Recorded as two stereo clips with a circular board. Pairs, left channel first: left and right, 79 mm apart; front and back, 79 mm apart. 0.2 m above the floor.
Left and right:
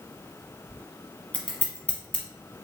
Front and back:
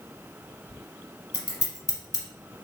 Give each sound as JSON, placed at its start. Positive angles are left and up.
{"t": 1.3, "sound": "scissors", "azimuth_deg": 20, "distance_m": 0.9}